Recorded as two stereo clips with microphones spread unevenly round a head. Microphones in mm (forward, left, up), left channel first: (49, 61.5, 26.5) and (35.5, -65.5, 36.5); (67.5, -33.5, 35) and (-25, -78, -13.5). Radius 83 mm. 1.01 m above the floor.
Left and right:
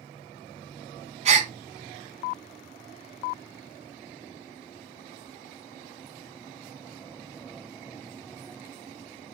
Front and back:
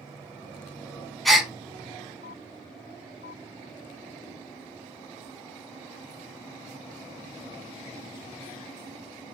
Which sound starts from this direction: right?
A gasp, at 1.2 s.